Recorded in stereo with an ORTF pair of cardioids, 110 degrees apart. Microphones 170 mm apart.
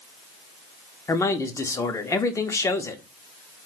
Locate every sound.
1.1 s a man speaking: 20° left, 0.6 m